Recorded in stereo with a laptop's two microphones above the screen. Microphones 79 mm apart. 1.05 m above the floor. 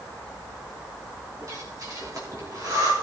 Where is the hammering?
No hammering in this recording.